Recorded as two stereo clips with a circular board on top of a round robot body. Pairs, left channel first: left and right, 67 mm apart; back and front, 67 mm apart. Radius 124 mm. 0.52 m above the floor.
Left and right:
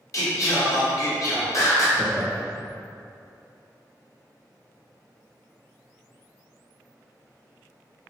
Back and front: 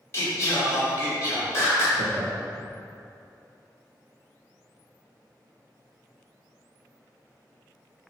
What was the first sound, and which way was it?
Singing, 130° left.